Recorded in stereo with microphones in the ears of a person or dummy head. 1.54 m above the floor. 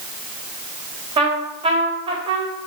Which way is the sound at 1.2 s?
25° right (ahead or behind).